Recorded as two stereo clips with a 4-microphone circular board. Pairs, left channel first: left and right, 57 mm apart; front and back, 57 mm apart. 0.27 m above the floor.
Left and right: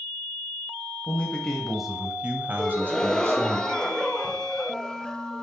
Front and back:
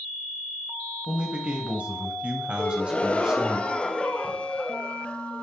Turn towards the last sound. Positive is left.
turn(degrees=30)